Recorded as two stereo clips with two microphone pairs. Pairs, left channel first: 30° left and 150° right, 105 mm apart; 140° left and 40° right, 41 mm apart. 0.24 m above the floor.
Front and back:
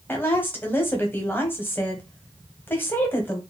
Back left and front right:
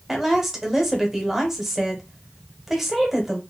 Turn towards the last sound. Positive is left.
turn(degrees=20)